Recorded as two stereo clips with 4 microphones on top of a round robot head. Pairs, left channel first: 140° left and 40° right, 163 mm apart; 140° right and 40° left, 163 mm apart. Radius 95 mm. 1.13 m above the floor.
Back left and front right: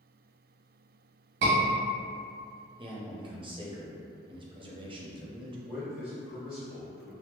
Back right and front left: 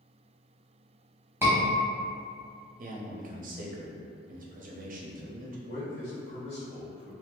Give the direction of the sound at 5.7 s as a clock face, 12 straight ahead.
4 o'clock.